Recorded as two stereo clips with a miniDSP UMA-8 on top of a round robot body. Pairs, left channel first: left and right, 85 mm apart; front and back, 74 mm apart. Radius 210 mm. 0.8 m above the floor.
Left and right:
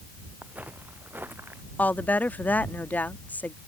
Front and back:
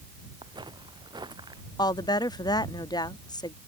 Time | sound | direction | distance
0.4 | footsteps | 165° right | ?
1.8 | a woman speaking | 20° left | ?